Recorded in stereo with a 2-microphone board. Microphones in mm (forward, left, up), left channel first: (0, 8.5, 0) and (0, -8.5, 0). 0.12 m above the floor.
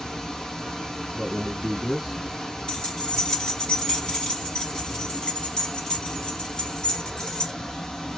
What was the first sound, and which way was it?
Running water, 45° left (ahead or behind).